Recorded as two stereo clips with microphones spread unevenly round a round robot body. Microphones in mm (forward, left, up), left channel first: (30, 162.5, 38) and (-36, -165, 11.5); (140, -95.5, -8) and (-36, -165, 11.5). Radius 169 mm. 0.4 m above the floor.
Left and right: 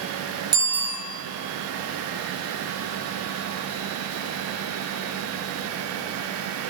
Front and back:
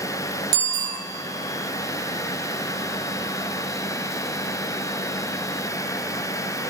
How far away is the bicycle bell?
About 4.5 m.